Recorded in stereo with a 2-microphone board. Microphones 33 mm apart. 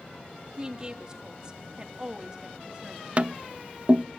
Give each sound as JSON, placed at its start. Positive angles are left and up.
{"t": 0.6, "sound": "a woman speaking", "side_deg": -20, "distance_m": 2.5}
{"t": 3.2, "sound": "tapping", "side_deg": -35, "distance_m": 0.6}